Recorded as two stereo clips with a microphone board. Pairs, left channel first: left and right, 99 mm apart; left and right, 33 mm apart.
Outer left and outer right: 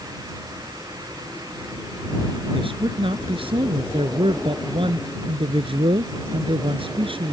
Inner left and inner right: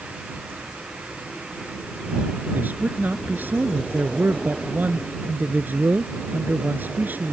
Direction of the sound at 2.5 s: 65° right (ahead or behind).